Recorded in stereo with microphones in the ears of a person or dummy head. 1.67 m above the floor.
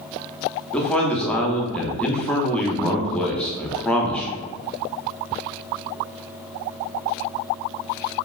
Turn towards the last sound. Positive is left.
turn(degrees=5)  # may be behind; listen again after turning